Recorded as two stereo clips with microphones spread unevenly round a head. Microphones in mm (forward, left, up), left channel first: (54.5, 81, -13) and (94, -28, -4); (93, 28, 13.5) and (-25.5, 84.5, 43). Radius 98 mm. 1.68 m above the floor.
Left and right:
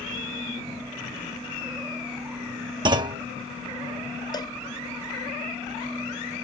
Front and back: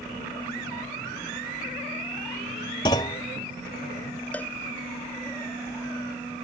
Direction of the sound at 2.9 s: 100° right.